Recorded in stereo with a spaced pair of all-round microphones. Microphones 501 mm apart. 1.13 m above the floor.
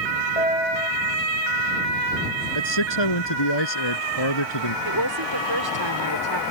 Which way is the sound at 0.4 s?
70° left (ahead or behind).